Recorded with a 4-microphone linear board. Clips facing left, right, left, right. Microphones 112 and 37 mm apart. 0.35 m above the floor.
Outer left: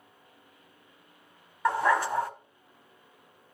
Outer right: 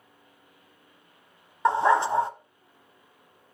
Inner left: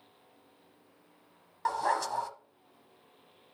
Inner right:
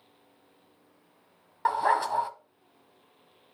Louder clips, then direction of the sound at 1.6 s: Outer right 4 dB, inner right 5 dB; 25° right (ahead or behind).